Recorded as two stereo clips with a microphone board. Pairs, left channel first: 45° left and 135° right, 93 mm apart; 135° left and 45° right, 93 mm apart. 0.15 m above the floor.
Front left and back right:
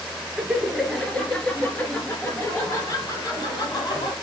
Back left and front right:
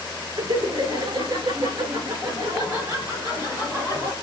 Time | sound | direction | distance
0.4 | laughter | 55° right | 2.0 m